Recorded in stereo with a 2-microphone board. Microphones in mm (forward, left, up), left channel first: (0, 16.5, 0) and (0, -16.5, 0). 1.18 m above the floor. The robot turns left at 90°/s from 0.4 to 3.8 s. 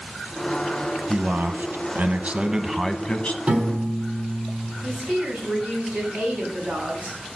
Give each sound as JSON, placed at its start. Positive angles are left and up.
{"t": 1.1, "sound": "a man speaking", "azimuth_deg": -30, "distance_m": 1.0}
{"t": 3.5, "sound": "a piano", "side_deg": -40, "distance_m": 4.0}
{"t": 4.8, "sound": "a woman speaking", "side_deg": -50, "distance_m": 8.0}